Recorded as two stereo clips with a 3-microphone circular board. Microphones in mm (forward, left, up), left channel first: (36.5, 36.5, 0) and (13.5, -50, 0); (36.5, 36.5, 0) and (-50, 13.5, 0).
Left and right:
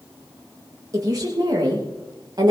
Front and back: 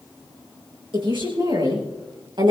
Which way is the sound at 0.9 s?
150° right.